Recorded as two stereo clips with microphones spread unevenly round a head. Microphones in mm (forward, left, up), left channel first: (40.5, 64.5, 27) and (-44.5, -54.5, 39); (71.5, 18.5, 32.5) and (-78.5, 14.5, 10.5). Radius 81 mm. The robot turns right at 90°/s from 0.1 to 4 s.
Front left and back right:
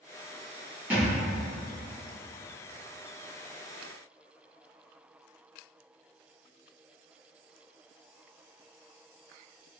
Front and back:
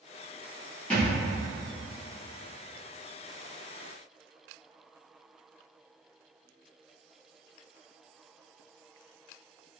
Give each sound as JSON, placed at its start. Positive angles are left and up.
{"t": 0.9, "sound": "a thud", "azimuth_deg": -60, "distance_m": 1.2}